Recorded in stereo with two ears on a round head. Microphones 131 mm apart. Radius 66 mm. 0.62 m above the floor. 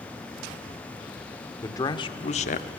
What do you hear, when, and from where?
1.6 s a man speaking: 20° left (ahead or behind), 1.7 m; by 2.7 s 55° left (ahead or behind), 1.3 m